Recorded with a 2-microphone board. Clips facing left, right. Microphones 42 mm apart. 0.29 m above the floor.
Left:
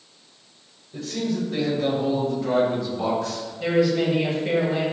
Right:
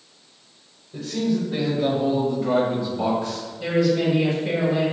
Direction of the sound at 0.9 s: Centre (ahead or behind).